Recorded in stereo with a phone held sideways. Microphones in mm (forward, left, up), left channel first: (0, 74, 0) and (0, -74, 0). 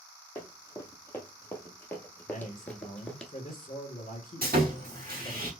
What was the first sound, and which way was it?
Running footsteps, 15° left (ahead or behind).